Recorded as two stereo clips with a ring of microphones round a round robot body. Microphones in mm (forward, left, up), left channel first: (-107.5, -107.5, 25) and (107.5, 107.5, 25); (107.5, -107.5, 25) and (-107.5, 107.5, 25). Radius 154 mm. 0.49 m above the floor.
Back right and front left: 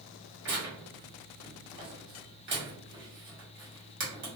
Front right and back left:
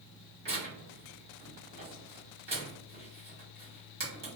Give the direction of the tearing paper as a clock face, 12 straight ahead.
10 o'clock.